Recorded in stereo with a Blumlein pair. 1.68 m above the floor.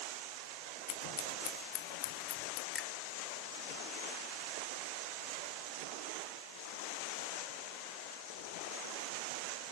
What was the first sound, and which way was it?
Scissors, 40° left.